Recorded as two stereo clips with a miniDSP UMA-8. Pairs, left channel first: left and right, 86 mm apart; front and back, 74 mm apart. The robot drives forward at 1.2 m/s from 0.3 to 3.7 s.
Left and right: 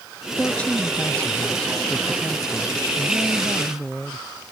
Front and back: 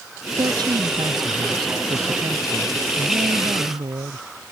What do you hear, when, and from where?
0.4 s a woman speaking: 165° left; by 4.2 s 170° left